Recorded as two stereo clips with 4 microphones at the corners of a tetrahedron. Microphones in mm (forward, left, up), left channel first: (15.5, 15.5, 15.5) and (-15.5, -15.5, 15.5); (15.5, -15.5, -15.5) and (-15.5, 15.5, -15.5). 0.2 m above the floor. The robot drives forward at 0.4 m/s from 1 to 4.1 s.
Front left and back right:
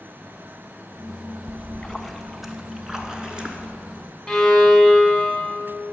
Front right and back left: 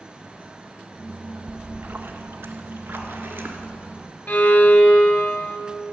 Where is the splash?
105° left, 0.5 m; by 3.8 s 160° left, 1.2 m.